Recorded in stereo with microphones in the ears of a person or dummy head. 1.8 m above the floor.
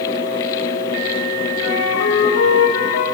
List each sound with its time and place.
1.6 s a flute: 85° left, 5.5 m